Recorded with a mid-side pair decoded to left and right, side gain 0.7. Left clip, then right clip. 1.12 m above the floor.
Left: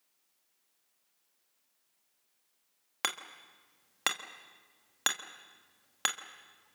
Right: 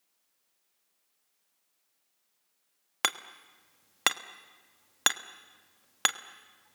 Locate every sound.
3.0 s hammering: 25° right, 1.3 m